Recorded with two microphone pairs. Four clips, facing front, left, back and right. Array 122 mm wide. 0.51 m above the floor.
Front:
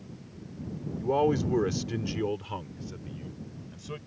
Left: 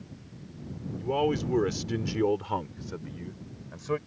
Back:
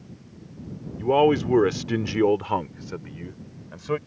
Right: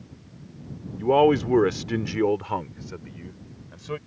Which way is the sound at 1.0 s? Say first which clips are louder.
Right 9 dB, back 7 dB; 120° right.